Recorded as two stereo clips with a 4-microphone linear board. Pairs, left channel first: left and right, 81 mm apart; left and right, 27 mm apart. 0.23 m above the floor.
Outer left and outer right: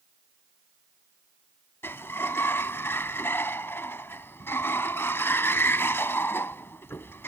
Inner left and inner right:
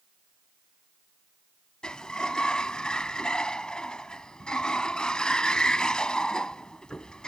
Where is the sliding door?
30° left (ahead or behind).